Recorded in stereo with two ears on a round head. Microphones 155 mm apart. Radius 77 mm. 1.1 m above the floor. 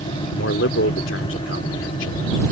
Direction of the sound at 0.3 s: 80° left.